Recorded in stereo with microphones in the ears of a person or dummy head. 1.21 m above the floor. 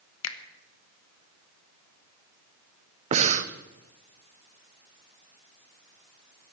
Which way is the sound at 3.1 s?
40° right (ahead or behind).